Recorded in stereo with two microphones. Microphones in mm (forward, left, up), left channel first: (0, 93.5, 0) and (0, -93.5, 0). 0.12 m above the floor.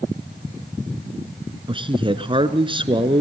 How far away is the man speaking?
About 1.6 m.